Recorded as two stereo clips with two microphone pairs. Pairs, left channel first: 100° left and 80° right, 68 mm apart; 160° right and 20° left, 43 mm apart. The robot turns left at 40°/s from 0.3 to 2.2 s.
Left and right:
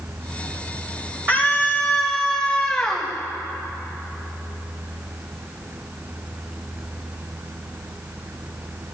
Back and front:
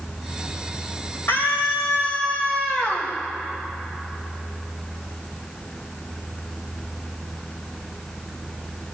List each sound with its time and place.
1.3 s a scream: 135° right, 3 m; by 3.1 s 175° right, 3 m